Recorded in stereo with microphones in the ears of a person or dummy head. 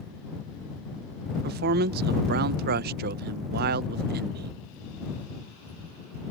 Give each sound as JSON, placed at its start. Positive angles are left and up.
{"t": 1.4, "sound": "a man speaking", "side_deg": -50}